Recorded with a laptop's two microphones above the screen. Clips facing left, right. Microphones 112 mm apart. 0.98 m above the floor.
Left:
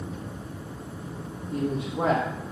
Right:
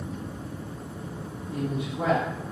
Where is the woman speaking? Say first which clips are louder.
Left 2 dB; 45° left (ahead or behind), 1.9 m.